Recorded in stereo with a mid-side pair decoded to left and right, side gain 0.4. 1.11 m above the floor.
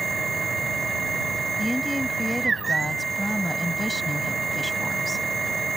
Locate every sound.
0.0 s a machine running: 35° right
1.6 s a woman speaking: 10° left